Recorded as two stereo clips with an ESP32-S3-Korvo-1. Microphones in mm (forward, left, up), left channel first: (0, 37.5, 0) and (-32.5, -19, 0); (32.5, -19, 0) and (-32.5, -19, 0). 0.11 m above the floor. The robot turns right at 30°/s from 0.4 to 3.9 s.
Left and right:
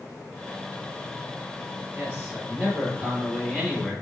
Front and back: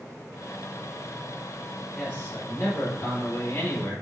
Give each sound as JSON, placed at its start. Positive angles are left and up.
{"t": 1.9, "sound": "a man speaking", "azimuth_deg": -65, "distance_m": 2.5}